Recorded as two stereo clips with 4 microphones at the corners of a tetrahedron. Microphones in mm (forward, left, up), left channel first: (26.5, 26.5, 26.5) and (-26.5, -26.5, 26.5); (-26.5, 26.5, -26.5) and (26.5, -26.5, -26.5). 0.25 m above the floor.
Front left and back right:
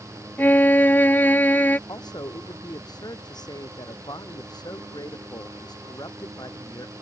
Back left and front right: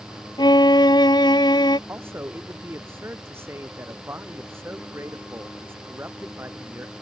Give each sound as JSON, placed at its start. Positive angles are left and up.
{"t": 0.4, "sound": "a violin", "azimuth_deg": 110}
{"t": 1.9, "sound": "a man speaking", "azimuth_deg": 10}